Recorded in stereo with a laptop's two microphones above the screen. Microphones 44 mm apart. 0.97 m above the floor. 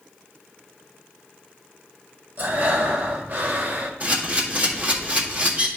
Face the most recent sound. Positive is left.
turn(degrees=-35)  # may be behind; listen again after turning